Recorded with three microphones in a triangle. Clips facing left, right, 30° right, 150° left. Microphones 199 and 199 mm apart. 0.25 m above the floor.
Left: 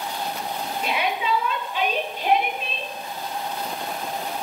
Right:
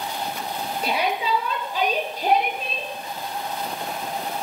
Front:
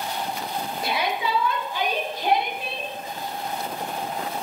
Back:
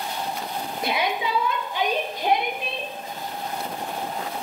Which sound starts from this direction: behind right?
A shout, at 0.8 s.